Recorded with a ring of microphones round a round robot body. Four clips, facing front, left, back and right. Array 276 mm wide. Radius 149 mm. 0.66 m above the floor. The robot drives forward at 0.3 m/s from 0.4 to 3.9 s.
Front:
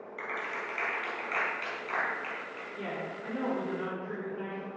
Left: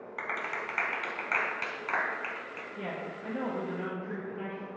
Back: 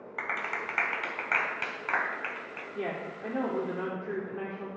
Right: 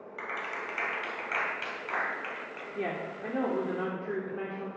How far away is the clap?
About 3 m.